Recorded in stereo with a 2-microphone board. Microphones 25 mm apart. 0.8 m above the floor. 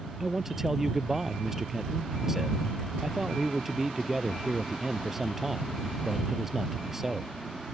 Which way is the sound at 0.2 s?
10° right (ahead or behind).